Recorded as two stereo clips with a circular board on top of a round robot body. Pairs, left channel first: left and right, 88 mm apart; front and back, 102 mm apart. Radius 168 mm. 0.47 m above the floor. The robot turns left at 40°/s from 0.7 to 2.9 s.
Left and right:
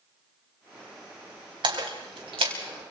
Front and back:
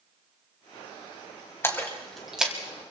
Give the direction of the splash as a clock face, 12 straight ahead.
2 o'clock.